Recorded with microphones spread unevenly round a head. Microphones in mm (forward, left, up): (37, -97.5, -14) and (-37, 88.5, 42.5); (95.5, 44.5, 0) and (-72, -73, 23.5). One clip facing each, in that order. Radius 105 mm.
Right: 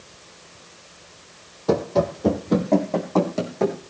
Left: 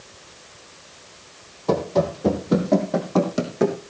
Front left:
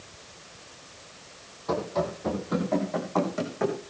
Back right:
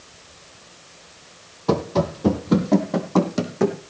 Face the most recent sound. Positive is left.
turn(degrees=175)